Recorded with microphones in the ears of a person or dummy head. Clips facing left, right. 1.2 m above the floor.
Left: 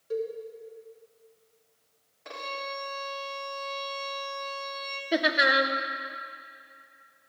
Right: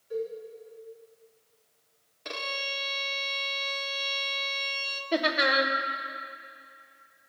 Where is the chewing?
I don't hear chewing.